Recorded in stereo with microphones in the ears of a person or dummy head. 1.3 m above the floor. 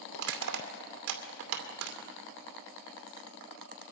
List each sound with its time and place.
0.1 s crushing: 75° right (ahead or behind), 2 m